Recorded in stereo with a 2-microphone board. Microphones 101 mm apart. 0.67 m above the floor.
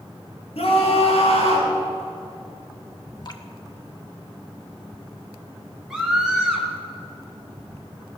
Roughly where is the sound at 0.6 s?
Left.